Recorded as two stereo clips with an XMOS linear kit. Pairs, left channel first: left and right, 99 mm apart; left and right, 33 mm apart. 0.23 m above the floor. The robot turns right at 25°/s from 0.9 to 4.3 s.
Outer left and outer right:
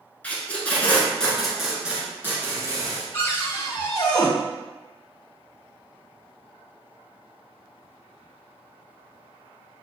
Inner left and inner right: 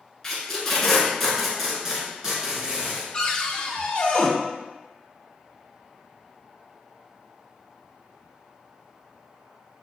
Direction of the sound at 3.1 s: 20° left (ahead or behind).